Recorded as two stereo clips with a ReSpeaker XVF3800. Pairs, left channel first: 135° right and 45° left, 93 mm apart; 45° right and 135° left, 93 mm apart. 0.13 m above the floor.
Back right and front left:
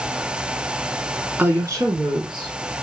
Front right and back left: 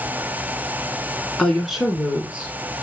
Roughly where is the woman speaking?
Ahead.